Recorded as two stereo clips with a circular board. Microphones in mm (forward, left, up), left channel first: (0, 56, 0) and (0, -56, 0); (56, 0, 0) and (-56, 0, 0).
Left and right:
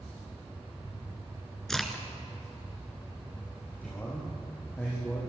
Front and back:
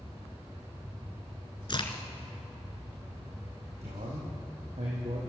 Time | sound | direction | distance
1.7 | a crack | 5° left | 2.0 m
3.8 | a man speaking | 165° left | 6 m